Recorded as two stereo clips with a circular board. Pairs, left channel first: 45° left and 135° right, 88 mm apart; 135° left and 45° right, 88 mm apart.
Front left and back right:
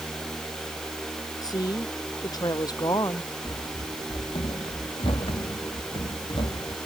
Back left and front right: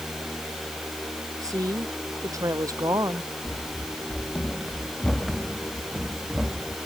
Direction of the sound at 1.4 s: 5° left.